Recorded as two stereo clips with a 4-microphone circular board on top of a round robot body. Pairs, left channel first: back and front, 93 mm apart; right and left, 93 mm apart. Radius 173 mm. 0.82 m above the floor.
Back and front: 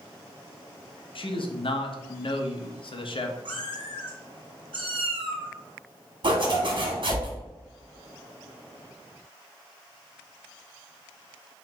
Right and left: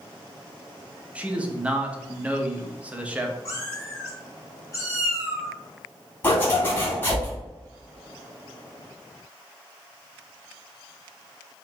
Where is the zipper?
25° right, 2 m.